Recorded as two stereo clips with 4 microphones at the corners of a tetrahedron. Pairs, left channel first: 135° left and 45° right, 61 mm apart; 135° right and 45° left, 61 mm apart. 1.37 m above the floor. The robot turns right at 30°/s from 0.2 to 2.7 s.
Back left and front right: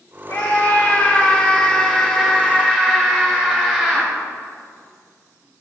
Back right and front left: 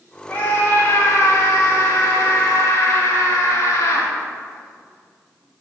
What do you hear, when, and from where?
0.3 s a scream: 165° left, 2 m; by 4.1 s 120° right, 2 m